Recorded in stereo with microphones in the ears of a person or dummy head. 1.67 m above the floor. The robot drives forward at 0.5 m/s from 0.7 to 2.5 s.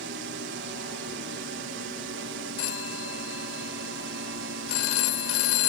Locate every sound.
0.0 s a drone: 60° right (ahead or behind)
2.6 s a phone ringing: 80° left